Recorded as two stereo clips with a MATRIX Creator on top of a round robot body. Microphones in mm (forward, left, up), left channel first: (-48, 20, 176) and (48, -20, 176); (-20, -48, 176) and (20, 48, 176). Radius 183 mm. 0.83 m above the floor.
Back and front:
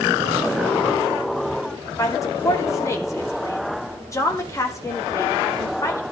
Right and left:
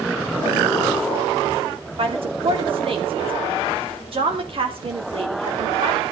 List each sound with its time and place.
2.0 s a woman speaking: 100° left, 2.5 m